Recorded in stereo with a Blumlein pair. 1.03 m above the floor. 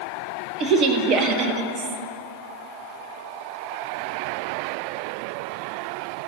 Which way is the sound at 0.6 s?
30° right.